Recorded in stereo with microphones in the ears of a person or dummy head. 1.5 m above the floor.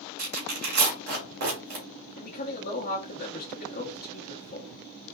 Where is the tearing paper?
50° right (ahead or behind), 1.6 m.